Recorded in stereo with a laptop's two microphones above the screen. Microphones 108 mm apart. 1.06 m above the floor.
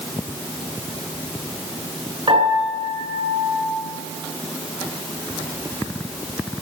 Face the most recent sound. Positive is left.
turn(degrees=-55)  # may be behind; listen again after turning